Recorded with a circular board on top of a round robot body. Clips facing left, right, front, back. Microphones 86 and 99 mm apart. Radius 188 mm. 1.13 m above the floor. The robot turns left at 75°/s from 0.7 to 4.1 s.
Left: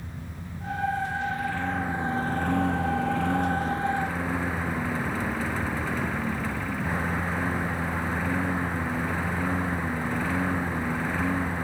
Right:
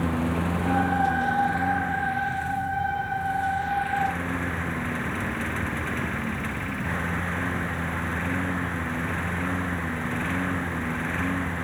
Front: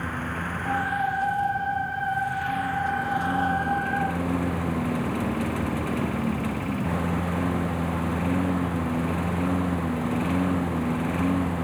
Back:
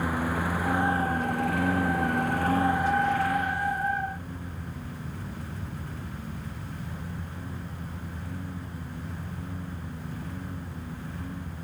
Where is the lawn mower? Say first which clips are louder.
Right 16 dB, back 3 dB; 100° right; by 11.7 s 5° left.